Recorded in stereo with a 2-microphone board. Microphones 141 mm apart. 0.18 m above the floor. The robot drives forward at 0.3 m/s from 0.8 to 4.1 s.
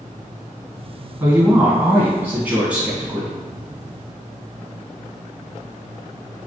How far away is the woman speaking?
About 1.3 m.